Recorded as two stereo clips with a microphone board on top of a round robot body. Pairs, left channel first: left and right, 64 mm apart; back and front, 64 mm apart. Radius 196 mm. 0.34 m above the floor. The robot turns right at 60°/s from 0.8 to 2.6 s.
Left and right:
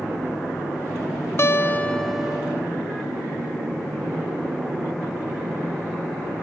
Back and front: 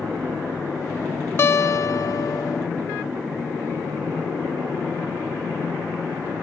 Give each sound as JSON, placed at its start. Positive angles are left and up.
{"t": 1.4, "sound": "a guitar", "azimuth_deg": 135, "distance_m": 0.5}